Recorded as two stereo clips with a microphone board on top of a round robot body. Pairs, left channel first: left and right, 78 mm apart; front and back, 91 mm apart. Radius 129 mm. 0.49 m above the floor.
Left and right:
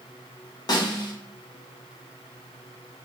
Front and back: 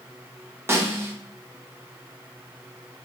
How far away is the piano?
No piano in this recording.